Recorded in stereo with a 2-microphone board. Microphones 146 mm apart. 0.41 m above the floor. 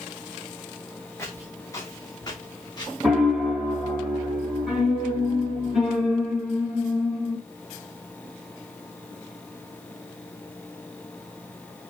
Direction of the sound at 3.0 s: 5° right (ahead or behind).